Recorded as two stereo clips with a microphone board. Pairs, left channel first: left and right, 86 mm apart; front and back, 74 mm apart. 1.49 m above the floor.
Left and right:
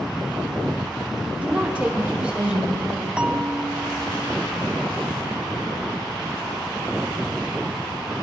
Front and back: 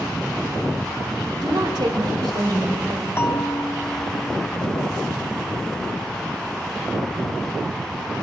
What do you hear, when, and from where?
1.4 s a woman speaking: 165° right, 3.5 m
3.2 s a bell: 20° right, 0.7 m